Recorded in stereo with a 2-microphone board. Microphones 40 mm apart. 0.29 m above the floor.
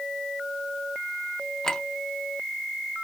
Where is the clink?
15° left (ahead or behind), 0.7 m.